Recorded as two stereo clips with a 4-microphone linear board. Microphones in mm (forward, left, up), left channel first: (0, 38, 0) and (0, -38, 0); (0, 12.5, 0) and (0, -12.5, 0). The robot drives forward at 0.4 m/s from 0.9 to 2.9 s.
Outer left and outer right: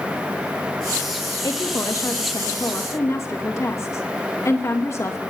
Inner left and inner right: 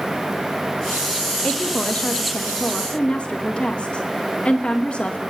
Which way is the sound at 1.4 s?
50° left (ahead or behind).